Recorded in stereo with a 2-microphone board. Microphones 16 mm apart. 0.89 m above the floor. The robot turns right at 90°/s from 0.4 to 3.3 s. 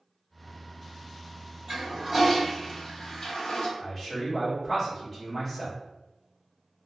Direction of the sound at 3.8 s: 5° left (ahead or behind).